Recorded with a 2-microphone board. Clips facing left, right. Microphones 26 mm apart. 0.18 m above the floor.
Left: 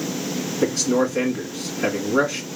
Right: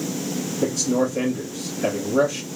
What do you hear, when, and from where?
0.6 s a man speaking: 45° left (ahead or behind), 1.7 m